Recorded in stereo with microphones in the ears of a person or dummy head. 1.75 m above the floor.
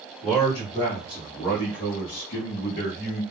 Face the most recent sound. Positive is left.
turn(degrees=45)  # may be behind; listen again after turning